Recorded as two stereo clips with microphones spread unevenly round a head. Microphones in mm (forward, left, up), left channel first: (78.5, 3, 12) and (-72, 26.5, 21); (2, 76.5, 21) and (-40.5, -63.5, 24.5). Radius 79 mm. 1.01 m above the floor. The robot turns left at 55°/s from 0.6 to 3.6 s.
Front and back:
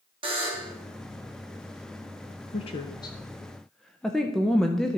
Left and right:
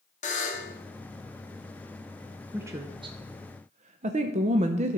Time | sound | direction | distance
0.2 | a buzzer | 115° left | 1.8 m
2.5 | a woman speaking | 30° right | 0.6 m